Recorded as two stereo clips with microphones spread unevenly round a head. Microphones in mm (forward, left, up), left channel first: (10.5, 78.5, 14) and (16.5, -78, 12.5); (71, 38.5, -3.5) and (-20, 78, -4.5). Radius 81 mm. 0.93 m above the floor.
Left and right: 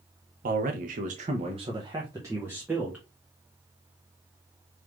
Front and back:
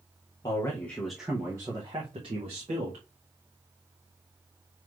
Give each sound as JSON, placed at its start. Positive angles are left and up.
{"t": 0.4, "sound": "a man speaking", "azimuth_deg": -80, "distance_m": 0.7}